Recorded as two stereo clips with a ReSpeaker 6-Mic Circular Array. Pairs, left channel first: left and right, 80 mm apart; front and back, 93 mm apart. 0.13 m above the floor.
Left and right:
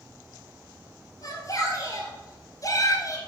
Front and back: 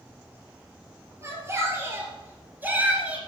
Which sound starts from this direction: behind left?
A shout, at 1.2 s.